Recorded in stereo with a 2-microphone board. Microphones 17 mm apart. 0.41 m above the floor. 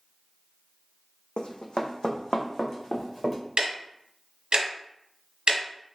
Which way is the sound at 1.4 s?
60° left (ahead or behind).